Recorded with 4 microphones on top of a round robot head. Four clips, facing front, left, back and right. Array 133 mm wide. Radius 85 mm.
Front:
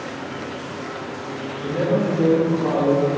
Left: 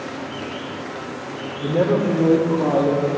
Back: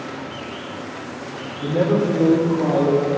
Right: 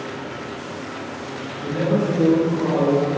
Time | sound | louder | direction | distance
1.6 | a man speaking | left 2 dB, back 2 dB | 130° left | 1.9 m